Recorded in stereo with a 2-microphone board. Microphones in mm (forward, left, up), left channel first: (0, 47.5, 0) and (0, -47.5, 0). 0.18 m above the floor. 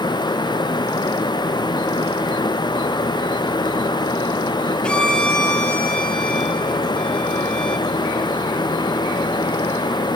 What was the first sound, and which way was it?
A violin, 10° left (ahead or behind).